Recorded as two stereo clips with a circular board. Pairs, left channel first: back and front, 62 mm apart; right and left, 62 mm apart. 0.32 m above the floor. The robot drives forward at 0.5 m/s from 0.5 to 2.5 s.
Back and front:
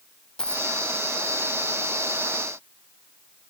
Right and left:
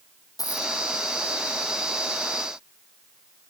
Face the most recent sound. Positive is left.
turn(degrees=-110)